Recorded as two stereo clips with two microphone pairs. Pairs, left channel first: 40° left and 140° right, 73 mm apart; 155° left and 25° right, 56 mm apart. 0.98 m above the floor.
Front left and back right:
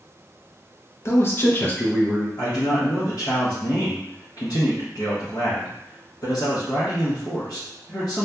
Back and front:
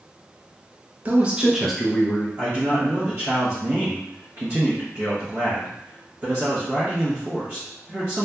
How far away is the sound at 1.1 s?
About 0.7 m.